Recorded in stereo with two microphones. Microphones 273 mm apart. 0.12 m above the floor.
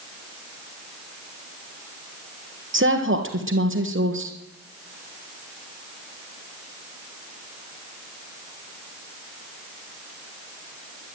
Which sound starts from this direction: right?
A woman speaking, at 2.7 s.